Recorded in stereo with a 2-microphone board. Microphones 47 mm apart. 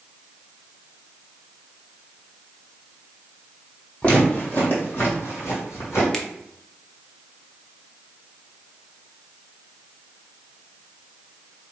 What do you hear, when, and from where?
4.0 s footsteps: 30° left (ahead or behind), 2 m; by 6.0 s 75° left (ahead or behind), 2.5 m
6.1 s a finger snap: 15° left (ahead or behind), 0.6 m